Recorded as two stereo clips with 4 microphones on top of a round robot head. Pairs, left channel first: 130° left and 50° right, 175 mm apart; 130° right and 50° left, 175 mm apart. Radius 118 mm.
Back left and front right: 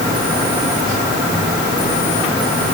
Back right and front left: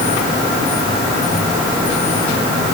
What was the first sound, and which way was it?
Only background noise.